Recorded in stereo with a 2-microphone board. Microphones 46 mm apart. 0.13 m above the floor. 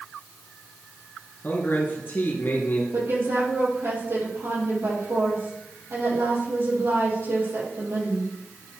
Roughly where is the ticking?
No ticking in this recording.